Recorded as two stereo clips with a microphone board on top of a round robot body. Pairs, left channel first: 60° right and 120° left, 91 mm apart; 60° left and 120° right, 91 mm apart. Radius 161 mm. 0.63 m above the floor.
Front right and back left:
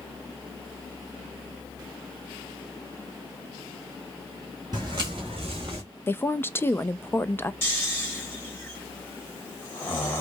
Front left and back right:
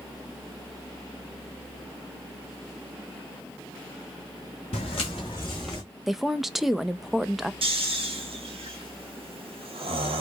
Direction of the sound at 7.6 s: 125° right.